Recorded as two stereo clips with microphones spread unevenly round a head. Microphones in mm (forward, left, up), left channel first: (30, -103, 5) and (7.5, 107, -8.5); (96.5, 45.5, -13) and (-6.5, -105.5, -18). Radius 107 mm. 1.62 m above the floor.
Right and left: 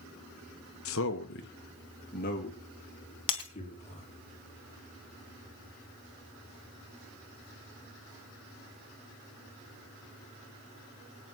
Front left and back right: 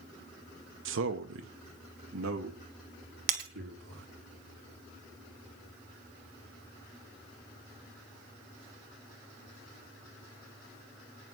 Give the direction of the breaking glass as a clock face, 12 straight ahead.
5 o'clock.